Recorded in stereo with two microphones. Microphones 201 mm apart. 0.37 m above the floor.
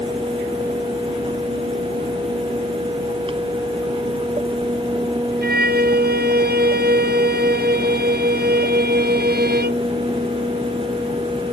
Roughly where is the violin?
Right.